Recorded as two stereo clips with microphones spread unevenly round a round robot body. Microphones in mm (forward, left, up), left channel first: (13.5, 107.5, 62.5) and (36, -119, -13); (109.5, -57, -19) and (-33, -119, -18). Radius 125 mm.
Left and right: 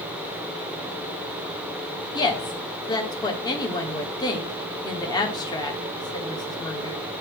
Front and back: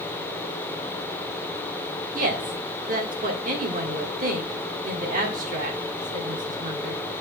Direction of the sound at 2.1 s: Straight behind.